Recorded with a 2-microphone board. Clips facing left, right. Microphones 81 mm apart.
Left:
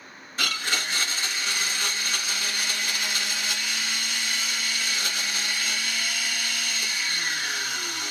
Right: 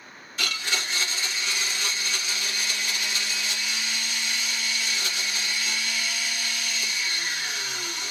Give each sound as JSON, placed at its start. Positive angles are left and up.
{"t": 0.4, "sound": "a blender", "side_deg": 35, "distance_m": 1.2}